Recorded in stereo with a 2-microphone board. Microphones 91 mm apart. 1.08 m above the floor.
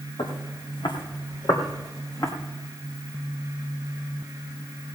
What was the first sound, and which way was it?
Footsteps, 70° left (ahead or behind).